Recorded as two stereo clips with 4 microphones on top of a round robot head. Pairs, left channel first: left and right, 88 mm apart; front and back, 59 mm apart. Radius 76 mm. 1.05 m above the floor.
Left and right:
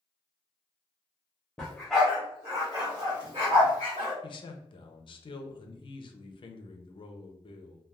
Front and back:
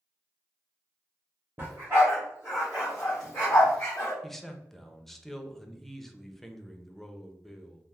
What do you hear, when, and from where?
1.6 s a dog barking: 160° left, 0.8 m; by 4.1 s 75° right, 1.3 m
4.2 s a man speaking: 85° left, 0.6 m